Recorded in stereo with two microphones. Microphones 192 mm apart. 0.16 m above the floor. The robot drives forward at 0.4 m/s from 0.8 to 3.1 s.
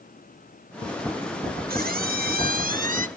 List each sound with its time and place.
1.7 s a squeak: 55° right (ahead or behind), 1.1 m; by 3.1 s 45° right (ahead or behind), 1.2 m